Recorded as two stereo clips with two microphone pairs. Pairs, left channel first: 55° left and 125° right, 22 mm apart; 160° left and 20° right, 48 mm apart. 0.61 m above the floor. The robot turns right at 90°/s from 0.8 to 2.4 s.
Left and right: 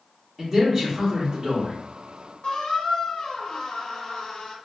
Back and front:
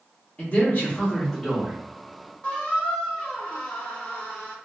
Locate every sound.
0.4 s a man speaking: 175° left, 1.0 m; by 1.8 s 100° right, 1.0 m
2.4 s a squeak: 95° left, 0.9 m